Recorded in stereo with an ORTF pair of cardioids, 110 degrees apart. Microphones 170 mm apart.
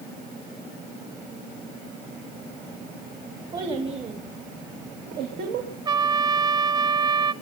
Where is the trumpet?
25° right, 0.8 m.